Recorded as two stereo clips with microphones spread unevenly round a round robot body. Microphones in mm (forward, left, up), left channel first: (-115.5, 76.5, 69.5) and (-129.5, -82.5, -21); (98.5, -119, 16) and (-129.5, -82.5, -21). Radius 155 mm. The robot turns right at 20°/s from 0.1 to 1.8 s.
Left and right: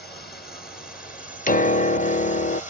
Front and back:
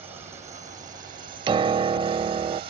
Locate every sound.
0.0 s a drone: 110° left; by 2.7 s 145° left
1.5 s a piano: 145° left; by 2.6 s 150° left